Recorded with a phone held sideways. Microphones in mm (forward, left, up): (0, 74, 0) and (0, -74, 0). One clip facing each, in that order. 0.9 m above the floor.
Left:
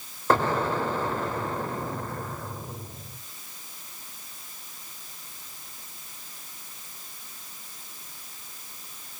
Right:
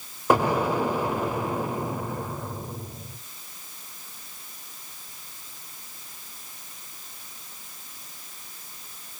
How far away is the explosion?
About 0.7 m.